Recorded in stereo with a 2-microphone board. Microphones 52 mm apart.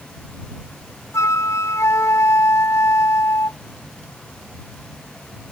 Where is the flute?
75° left (ahead or behind).